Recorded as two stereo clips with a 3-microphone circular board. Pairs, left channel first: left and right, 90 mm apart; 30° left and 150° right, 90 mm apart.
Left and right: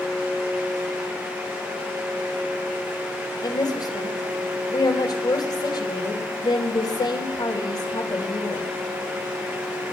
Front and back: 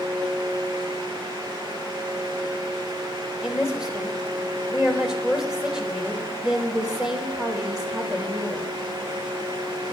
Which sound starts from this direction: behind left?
A woman speaking, at 3.4 s.